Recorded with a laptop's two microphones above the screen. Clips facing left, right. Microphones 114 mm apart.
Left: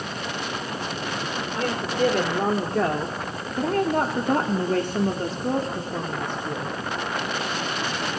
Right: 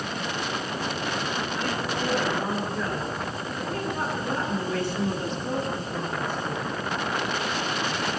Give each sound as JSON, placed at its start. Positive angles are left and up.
{"t": 1.6, "sound": "a woman speaking", "side_deg": 65, "distance_m": 4.0}